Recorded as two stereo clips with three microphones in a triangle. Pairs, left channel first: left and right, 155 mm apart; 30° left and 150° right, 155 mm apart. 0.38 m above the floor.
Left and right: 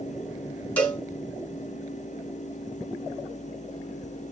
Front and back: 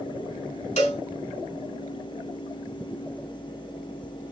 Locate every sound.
0.8 s a cowbell: 15° left, 2.0 m